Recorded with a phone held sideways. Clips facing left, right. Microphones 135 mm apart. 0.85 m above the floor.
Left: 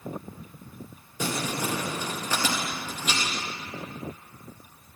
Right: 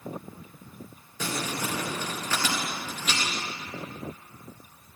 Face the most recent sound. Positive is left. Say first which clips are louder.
# left 2 dB
turn(degrees=15)  # may be behind; listen again after turning